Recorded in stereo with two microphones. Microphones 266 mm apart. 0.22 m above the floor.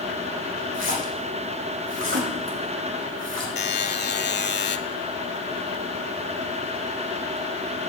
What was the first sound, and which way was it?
A splash, 50° right (ahead or behind).